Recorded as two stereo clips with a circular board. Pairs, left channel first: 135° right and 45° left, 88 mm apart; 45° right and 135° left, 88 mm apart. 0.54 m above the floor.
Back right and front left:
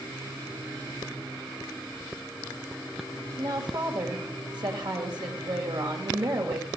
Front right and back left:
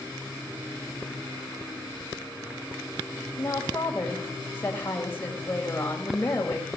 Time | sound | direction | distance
3.4 | a woman speaking | 20° left | 2.5 m